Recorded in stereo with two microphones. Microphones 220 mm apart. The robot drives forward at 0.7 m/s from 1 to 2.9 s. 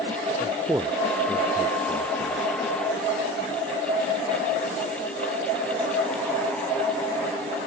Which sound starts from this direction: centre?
A man speaking, at 0.4 s.